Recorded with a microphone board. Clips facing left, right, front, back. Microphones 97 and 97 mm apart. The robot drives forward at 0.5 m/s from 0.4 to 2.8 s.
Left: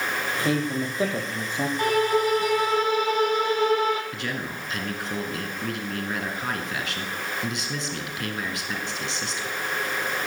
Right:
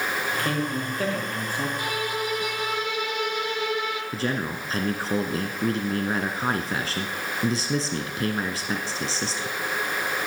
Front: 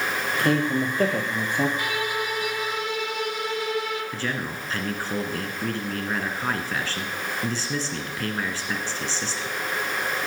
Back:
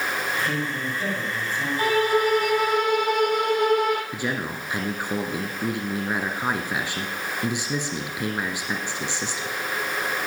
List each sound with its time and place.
0.4 s a man speaking: 20° left, 4.5 m; by 1.7 s 25° left, 4 m
1.8 s a violin: 130° left, 1.3 m; by 4.0 s 145° left, 1.7 m
4.1 s a man speaking: 115° right, 1.5 m